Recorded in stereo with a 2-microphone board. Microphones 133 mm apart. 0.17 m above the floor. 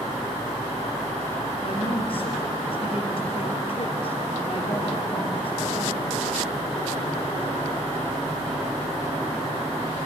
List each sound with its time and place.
1.6 s a woman speaking: 45° left (ahead or behind), 3.5 m